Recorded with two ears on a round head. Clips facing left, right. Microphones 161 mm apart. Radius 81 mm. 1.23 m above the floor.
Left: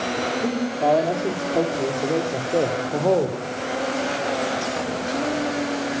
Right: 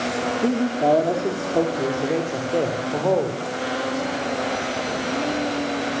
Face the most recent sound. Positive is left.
turn(degrees=15)  # may be behind; listen again after turning